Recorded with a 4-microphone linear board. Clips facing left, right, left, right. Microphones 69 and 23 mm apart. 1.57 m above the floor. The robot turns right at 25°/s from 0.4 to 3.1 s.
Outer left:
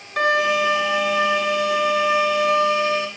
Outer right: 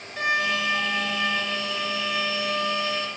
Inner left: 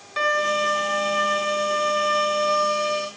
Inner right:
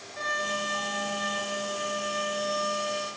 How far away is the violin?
About 4.5 m.